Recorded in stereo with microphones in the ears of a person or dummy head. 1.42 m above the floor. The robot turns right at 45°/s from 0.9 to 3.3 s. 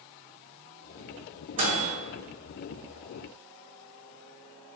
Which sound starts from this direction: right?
A microwave, at 1.6 s.